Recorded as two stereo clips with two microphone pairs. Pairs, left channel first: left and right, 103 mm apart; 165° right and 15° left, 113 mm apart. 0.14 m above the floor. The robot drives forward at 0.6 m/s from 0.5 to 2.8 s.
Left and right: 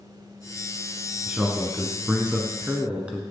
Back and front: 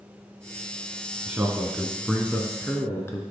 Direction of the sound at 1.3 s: 35° right.